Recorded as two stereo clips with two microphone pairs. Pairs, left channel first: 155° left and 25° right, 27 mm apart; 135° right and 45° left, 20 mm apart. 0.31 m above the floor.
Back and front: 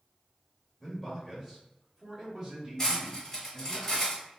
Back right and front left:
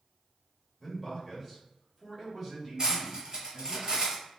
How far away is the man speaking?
About 1.3 m.